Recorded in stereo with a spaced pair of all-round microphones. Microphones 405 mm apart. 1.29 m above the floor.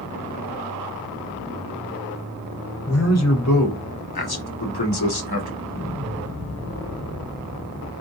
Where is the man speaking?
35° left (ahead or behind), 1.6 m; by 5.5 s 70° left (ahead or behind), 1.2 m.